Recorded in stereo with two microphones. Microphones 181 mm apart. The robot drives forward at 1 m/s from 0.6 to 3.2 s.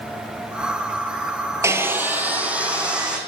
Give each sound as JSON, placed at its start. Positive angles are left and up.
{"t": 1.6, "sound": "sawing", "side_deg": -15, "distance_m": 0.8}